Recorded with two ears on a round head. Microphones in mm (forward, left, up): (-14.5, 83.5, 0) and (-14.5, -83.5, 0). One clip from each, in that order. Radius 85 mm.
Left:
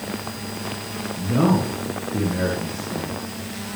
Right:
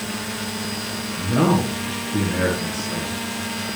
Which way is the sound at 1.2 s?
80° right.